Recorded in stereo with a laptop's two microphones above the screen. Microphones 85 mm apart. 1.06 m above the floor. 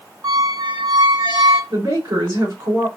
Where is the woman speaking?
65° right (ahead or behind), 1.9 m.